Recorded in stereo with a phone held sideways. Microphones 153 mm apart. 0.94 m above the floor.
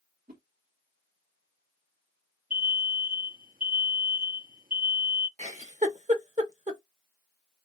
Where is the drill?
I don't hear a drill.